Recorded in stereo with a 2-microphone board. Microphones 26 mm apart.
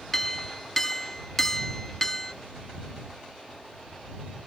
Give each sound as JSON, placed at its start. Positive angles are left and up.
{"t": 0.1, "sound": "a clink", "side_deg": 15}